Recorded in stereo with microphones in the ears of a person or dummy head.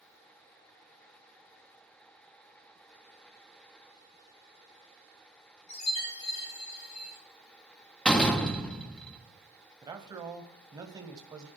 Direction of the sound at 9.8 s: 20° right (ahead or behind).